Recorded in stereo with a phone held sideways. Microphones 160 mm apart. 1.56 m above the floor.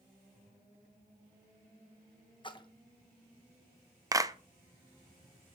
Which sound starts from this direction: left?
A splash, at 2.4 s.